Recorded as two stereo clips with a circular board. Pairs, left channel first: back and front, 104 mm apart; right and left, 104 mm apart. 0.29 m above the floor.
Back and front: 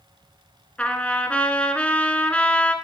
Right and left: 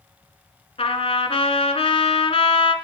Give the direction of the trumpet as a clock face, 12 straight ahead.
3 o'clock.